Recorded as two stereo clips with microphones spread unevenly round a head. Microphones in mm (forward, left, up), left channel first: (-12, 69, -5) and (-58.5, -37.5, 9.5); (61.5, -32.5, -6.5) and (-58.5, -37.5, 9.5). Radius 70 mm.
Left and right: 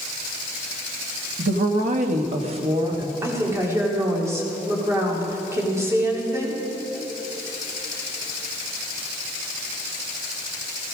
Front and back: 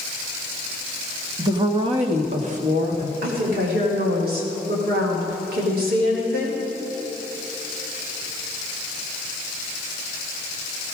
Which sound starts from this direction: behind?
A woman speaking, at 3.2 s.